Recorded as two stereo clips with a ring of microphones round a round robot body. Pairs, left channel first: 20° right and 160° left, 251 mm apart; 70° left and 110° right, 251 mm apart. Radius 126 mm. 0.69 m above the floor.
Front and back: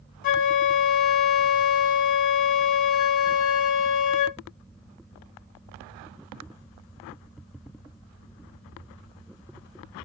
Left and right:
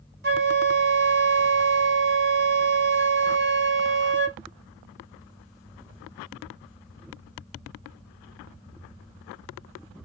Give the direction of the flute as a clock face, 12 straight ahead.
2 o'clock.